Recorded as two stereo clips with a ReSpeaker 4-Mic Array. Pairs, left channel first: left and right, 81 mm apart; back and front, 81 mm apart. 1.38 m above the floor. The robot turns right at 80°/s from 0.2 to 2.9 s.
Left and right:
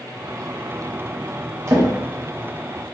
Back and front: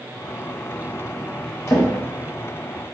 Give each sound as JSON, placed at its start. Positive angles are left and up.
{"t": 1.7, "sound": "a drawer", "azimuth_deg": -130, "distance_m": 0.9}